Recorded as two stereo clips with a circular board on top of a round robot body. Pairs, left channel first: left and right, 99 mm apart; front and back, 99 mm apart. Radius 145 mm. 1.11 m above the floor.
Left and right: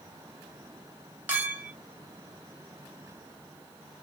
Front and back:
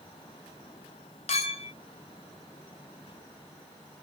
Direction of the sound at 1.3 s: 15° right.